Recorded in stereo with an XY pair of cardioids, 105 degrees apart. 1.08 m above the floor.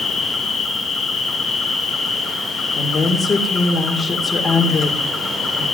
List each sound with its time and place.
0.0 s an insect: 40° left, 3.5 m
2.8 s a woman speaking: 30° left, 3 m